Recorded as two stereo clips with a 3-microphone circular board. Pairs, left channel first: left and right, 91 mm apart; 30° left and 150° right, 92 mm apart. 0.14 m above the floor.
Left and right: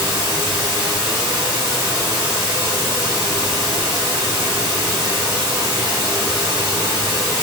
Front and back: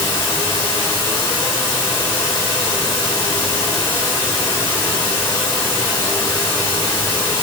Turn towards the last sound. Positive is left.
turn(degrees=-30)